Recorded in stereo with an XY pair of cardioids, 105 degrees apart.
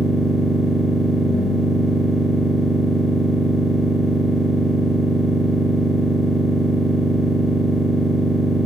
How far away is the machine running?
About 1.4 m.